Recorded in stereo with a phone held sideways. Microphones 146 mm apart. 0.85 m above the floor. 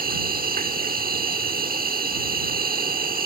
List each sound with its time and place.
0.0 s an insect: 75° right (ahead or behind)